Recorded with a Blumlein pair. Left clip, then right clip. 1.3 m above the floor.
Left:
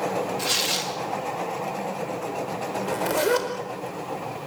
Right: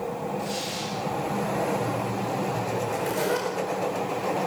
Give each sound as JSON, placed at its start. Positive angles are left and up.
{"t": 0.4, "sound": "tearing paper", "azimuth_deg": 35, "distance_m": 2.5}
{"t": 2.8, "sound": "a zipper", "azimuth_deg": 70, "distance_m": 4.5}